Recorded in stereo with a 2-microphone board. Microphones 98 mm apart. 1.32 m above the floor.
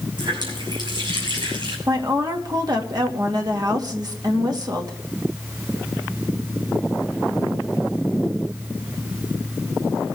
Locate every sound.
0.2 s a running tap: 50° right (ahead or behind), 5.5 m
1.9 s a woman speaking: 45° right (ahead or behind), 2 m